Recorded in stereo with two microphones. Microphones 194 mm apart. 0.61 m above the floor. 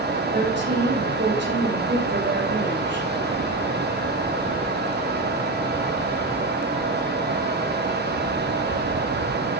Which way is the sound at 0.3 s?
65° right (ahead or behind).